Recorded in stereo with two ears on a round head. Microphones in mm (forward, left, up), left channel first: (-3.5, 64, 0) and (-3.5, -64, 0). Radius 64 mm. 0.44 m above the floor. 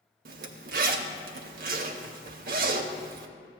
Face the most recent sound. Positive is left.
turn(degrees=-65)  # may be behind; listen again after turning